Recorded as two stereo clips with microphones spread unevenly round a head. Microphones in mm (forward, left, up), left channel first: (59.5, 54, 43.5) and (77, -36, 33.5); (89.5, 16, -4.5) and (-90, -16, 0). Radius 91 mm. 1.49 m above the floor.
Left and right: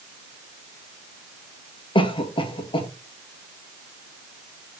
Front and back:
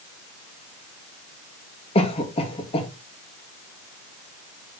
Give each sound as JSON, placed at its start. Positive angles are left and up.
{"t": 1.9, "sound": "a cough", "azimuth_deg": 70, "distance_m": 2.5}